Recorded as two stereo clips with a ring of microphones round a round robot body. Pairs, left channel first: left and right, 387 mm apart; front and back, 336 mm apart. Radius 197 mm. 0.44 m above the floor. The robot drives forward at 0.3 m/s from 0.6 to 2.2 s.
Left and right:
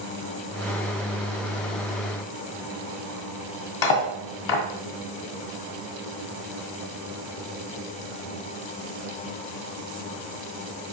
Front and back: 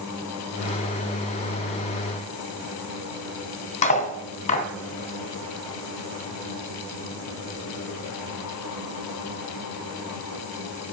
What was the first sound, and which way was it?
Cutlery clinking, 70° left.